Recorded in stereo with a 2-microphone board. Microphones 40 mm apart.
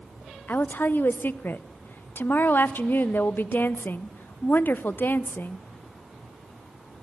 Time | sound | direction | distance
0.5 | a woman speaking | 60° left (ahead or behind) | 0.6 m